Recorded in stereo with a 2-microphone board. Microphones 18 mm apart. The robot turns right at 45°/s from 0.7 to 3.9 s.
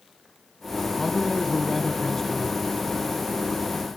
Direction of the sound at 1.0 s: 20° left (ahead or behind).